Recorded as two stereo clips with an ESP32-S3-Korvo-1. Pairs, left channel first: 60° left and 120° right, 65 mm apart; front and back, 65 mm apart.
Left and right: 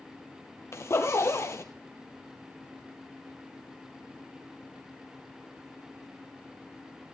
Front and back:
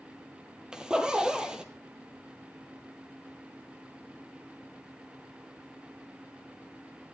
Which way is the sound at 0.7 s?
105° left.